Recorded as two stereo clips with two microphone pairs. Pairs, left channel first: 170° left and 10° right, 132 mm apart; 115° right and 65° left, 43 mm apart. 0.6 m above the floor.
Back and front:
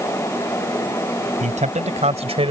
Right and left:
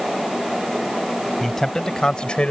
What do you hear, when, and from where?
1.4 s a man speaking: 30° right; by 2.5 s 50° right